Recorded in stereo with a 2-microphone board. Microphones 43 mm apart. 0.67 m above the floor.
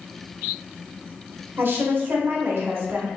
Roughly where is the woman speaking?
Right.